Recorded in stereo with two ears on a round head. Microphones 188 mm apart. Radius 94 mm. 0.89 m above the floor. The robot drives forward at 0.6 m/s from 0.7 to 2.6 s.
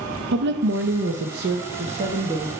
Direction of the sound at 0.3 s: 55° right (ahead or behind).